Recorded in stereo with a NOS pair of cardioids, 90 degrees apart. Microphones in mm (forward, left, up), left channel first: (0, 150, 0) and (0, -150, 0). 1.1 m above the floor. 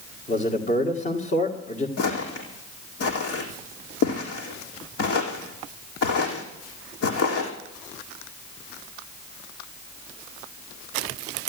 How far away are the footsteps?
About 4 m.